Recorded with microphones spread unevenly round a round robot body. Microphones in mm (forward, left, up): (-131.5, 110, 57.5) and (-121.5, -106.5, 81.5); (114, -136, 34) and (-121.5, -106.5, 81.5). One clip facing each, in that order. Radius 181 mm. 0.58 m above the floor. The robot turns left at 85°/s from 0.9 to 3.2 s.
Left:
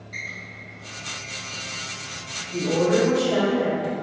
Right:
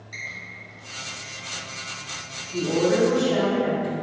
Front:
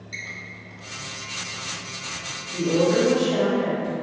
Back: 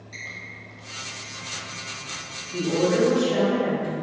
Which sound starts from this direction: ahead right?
A squeak, at 0.1 s.